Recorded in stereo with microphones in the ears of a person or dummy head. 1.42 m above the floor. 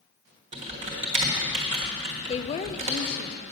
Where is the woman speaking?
35° left (ahead or behind), 0.5 m.